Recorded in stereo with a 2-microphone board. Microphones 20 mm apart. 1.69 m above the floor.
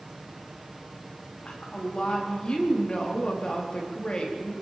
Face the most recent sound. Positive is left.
turn(degrees=45)  # may be behind; listen again after turning